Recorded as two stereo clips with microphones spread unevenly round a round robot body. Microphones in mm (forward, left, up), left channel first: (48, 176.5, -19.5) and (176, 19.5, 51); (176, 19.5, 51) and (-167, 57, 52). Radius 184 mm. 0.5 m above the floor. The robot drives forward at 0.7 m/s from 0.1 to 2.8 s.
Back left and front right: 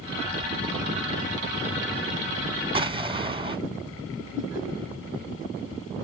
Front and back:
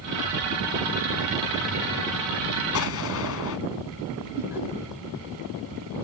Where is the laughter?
90° left, 4.5 m.